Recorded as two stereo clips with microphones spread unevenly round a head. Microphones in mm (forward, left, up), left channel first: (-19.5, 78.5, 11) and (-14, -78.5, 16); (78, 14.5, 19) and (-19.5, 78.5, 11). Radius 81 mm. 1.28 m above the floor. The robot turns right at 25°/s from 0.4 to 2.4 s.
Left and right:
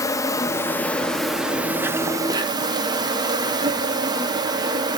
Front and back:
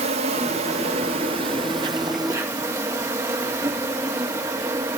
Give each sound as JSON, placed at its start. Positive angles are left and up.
{"t": 0.0, "sound": "an insect", "azimuth_deg": 160, "distance_m": 1.0}